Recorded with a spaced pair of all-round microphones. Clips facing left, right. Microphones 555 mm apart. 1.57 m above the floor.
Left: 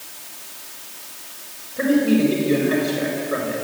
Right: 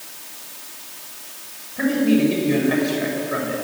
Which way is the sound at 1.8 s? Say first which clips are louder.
Even; 10° right (ahead or behind).